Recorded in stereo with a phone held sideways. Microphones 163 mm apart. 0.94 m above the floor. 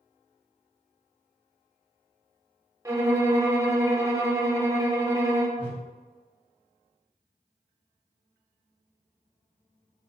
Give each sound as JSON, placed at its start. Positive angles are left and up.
{"t": 2.9, "sound": "a violin", "side_deg": -20, "distance_m": 0.6}
{"t": 5.6, "sound": "a whoosh", "side_deg": -10, "distance_m": 1.0}